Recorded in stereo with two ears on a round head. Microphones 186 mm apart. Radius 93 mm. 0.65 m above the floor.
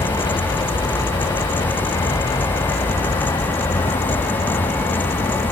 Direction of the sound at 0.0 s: 20° left (ahead or behind).